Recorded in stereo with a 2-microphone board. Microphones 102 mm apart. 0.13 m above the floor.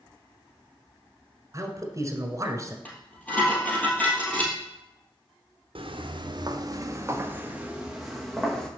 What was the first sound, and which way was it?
A man speaking, 35° right (ahead or behind).